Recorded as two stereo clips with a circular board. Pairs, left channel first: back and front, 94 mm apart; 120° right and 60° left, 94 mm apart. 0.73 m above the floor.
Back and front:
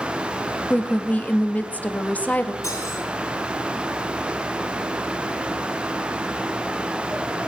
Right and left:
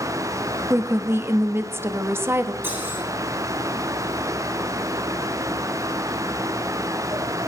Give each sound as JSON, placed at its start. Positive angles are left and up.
{"t": 0.7, "sound": "a woman speaking", "azimuth_deg": 110, "distance_m": 0.9}
{"t": 2.6, "sound": "cutlery clinking", "azimuth_deg": 125, "distance_m": 8.0}